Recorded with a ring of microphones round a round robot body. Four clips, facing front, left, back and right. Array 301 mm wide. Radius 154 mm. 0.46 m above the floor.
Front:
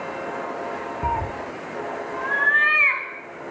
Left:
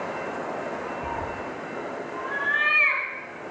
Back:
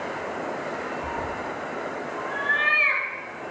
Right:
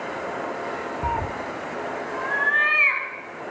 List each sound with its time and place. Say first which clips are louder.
1.0 s a cat meowing: right 4 dB, front 4 dB; 30° right, 0.8 m; by 3.1 s 20° right, 3 m